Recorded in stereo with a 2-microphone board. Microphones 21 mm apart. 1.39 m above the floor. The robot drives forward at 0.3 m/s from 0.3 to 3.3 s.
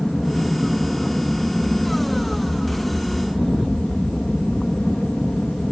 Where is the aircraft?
55° left (ahead or behind).